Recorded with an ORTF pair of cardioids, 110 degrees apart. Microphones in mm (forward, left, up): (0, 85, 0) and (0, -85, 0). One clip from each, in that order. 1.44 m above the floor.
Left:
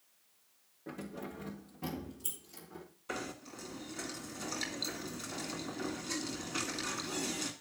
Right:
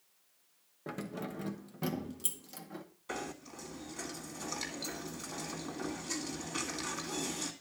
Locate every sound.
0.9 s keys jangling: 50° right, 1.3 m; by 2.9 s 65° right, 2.5 m
3.1 s knocking: 5° right, 2 m